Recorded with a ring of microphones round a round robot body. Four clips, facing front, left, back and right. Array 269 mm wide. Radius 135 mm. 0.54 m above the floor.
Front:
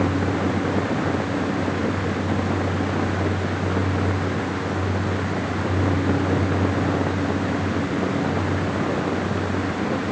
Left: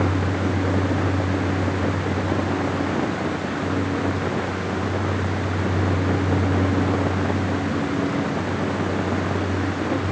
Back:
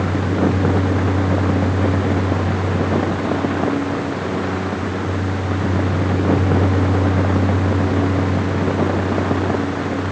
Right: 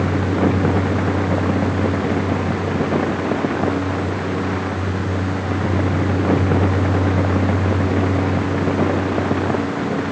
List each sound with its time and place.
Only background noise.